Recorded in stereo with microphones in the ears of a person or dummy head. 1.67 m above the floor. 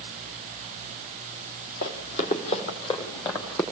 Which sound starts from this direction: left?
Running footsteps, at 1.8 s.